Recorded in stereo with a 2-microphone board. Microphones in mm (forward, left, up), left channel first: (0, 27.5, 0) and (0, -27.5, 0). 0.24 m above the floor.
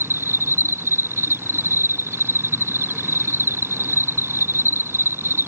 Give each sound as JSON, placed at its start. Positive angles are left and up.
{"t": 0.0, "sound": "an insect", "side_deg": -55}